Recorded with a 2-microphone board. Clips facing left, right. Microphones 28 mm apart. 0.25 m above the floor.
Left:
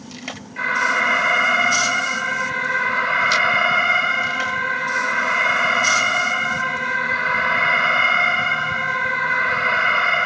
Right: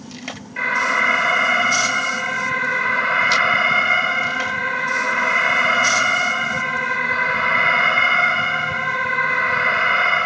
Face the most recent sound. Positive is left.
turn(degrees=-10)  # may be behind; listen again after turning